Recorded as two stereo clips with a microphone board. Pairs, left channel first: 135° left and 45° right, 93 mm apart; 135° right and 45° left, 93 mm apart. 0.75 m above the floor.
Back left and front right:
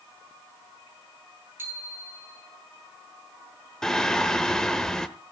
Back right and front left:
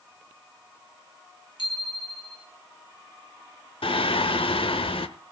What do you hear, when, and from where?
1.6 s a bicycle bell: 110° right, 5.5 m
3.8 s singing: 140° right, 0.9 m